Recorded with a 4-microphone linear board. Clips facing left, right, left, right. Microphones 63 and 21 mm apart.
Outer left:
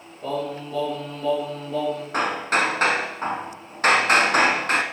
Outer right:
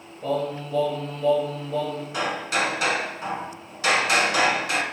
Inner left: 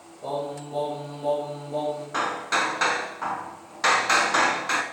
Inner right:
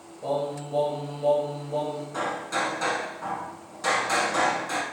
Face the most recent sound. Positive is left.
turn(degrees=45)  # may be behind; listen again after turning